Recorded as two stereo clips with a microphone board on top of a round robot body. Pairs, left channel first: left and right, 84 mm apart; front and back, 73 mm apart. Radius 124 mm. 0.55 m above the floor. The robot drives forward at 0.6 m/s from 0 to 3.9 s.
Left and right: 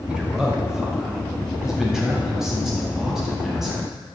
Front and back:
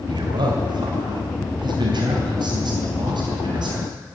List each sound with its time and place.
0.1 s a man speaking: 170° right, 2 m; by 3.8 s 175° right, 4.5 m